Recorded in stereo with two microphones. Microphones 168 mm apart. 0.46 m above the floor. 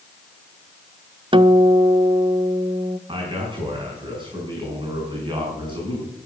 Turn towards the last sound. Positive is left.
turn(degrees=-30)  # may be behind; listen again after turning